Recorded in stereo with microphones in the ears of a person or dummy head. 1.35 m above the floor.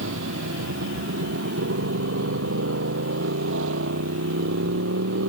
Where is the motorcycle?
75° right (ahead or behind); by 5.3 s 80° right.